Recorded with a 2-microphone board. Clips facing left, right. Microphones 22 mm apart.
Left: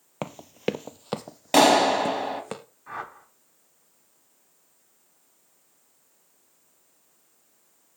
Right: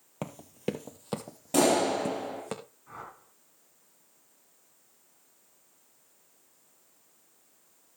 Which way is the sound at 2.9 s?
50° left (ahead or behind).